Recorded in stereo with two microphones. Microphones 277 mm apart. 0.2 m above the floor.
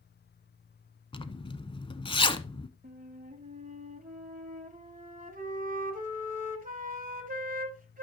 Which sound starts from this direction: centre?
A zipper, at 1.1 s.